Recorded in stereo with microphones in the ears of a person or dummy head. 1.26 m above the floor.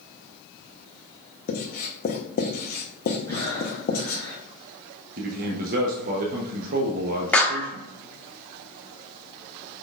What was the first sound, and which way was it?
Writing, 40° left (ahead or behind).